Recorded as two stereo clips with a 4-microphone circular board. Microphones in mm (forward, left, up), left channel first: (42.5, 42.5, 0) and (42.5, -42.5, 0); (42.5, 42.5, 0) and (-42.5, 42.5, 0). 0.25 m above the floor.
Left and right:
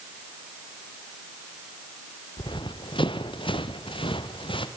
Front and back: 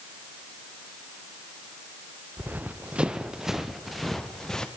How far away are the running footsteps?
About 1.8 m.